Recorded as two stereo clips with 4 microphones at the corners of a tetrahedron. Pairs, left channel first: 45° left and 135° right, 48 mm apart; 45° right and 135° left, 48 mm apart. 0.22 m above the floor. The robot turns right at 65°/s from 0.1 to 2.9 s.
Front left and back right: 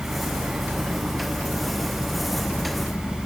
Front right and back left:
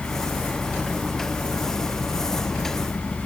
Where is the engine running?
Straight behind; by 3.3 s straight ahead.